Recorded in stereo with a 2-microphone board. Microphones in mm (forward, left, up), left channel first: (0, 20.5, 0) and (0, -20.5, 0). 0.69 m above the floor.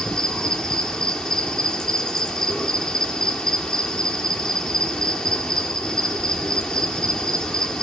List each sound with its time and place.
0.0 s an insect: 20° left (ahead or behind), 1.3 m